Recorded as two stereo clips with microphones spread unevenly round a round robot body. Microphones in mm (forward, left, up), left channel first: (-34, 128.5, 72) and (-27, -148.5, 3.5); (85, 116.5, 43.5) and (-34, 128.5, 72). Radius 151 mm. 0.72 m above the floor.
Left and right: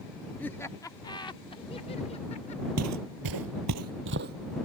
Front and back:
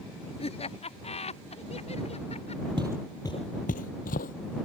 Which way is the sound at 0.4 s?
Straight ahead.